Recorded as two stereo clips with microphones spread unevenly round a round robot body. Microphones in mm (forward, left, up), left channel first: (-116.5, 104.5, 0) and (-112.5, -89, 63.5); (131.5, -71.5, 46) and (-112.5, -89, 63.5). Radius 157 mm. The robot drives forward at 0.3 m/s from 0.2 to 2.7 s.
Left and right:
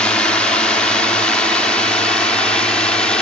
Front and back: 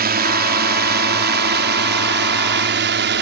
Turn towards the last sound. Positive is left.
turn(degrees=155)